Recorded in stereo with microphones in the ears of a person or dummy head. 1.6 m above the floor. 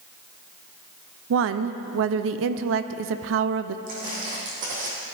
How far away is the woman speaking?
About 0.7 m.